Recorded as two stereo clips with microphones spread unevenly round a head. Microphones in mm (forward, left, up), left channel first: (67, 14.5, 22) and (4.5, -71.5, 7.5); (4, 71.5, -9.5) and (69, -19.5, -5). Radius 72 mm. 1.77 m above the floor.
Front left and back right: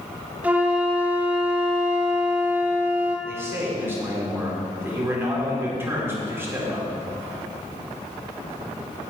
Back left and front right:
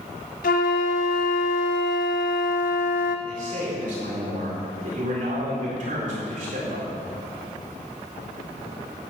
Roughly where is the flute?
Behind left.